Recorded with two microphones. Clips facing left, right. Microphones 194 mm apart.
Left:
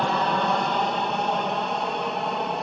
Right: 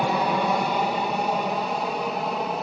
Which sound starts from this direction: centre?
An aircraft, at 0.0 s.